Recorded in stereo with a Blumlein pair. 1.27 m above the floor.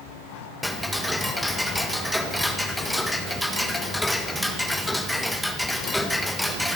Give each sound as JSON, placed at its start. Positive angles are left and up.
{"t": 0.6, "sound": "ticking", "azimuth_deg": 0, "distance_m": 1.5}